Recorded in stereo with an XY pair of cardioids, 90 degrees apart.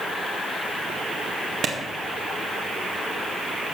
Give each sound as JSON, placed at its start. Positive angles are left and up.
{"t": 1.6, "sound": "a clap", "azimuth_deg": -65, "distance_m": 1.9}